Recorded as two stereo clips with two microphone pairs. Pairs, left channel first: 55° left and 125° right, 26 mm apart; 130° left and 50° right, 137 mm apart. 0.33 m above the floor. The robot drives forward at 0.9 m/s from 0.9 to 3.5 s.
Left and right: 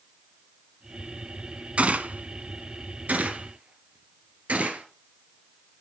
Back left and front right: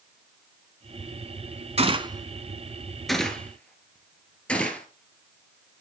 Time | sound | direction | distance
1.8 | a gunshot | 90° right | 0.9 m